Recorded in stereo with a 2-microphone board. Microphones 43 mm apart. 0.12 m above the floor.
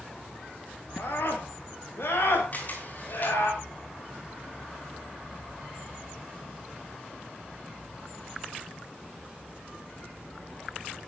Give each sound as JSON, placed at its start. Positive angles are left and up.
{"t": 1.0, "sound": "a scream", "side_deg": 70, "distance_m": 9.0}
{"t": 2.5, "sound": "a camera shutter", "side_deg": 45, "distance_m": 8.5}